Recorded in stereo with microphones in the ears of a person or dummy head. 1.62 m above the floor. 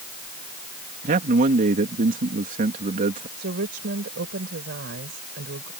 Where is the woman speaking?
60° right (ahead or behind).